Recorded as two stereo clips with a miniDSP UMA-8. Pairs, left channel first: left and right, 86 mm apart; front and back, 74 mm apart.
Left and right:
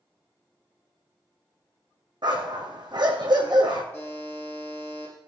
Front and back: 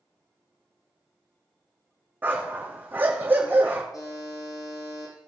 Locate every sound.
2.2 s a dog barking: 120° right, 2.5 m
3.9 s a buzzer: 20° left, 6 m